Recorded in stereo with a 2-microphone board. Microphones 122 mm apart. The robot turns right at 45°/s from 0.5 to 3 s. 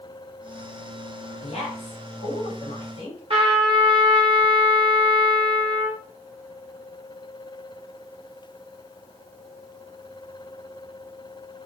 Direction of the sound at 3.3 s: 50° right (ahead or behind).